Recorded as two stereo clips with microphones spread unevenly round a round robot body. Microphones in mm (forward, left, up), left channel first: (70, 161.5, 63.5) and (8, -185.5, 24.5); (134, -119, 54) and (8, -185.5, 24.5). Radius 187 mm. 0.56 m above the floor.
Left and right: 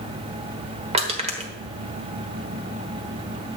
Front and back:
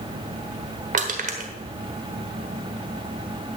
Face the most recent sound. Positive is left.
turn(degrees=-170)